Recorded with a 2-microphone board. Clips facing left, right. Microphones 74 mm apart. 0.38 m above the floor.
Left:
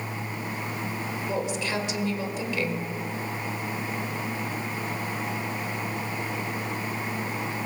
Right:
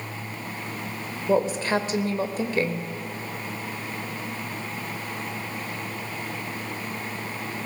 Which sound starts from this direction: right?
A woman speaking, at 1.3 s.